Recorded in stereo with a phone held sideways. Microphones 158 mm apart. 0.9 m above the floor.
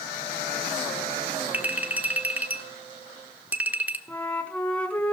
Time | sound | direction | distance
1.5 | a clink | 10° right (ahead or behind) | 1.0 m
4.1 | a flute | 10° left (ahead or behind) | 1.8 m